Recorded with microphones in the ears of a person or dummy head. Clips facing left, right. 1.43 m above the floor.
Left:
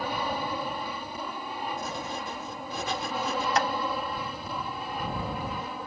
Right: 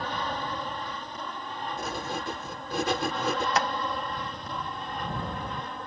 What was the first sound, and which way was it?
An aircraft, 10° left (ahead or behind).